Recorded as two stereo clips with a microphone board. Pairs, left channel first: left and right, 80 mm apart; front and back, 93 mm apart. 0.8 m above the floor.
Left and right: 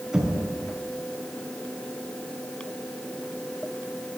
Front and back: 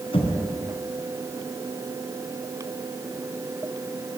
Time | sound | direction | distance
0.1 | knocking | 10° right | 5 m